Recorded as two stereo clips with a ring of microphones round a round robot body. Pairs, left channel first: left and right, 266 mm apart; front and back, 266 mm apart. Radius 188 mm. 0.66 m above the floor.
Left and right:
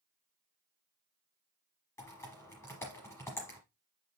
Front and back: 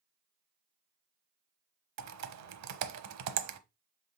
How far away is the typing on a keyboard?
About 0.9 m.